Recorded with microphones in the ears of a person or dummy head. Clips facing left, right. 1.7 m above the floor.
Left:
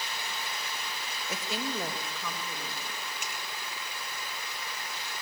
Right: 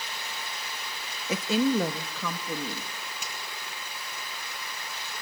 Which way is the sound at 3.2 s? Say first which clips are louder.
Even; 40° right (ahead or behind).